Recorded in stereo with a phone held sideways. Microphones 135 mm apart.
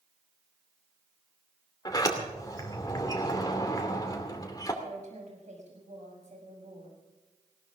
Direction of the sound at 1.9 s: 30° left (ahead or behind).